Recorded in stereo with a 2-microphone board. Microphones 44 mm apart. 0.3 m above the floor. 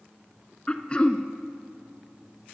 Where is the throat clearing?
25° left (ahead or behind), 0.6 m.